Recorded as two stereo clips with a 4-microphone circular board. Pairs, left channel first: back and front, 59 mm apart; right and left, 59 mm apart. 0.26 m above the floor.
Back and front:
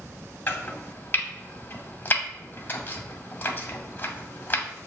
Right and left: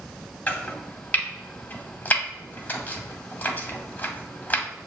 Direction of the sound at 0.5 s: 140° right.